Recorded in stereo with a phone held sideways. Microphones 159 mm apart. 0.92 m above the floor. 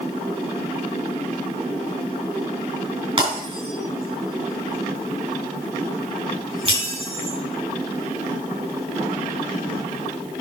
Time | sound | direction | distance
3.2 | breaking glass | 35° right (ahead or behind) | 6.5 m